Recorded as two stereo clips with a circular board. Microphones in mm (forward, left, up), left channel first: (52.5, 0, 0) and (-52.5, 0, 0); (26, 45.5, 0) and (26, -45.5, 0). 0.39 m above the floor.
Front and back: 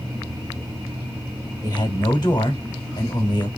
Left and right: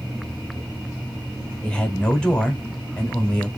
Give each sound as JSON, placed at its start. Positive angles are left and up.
{"t": 1.6, "sound": "a man speaking", "azimuth_deg": 15, "distance_m": 1.1}